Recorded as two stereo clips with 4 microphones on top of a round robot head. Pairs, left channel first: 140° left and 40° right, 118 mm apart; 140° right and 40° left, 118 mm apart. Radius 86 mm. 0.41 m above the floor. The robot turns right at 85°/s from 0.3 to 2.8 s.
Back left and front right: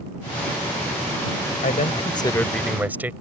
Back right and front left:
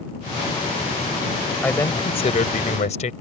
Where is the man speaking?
140° left; by 3.1 s 120° right.